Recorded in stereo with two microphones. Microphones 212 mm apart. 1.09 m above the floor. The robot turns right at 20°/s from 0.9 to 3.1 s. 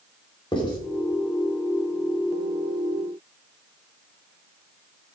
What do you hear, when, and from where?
0.5 s writing: 20° left (ahead or behind), 3.5 m